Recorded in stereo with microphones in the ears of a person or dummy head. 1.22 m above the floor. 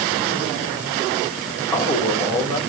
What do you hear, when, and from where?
1.7 s a man speaking: 5° left (ahead or behind), 3 m